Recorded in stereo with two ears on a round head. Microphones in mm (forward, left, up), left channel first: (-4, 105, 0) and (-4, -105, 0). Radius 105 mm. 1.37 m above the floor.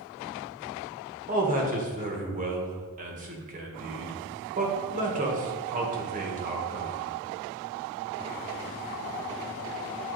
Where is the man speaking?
35° right (ahead or behind), 1.3 m.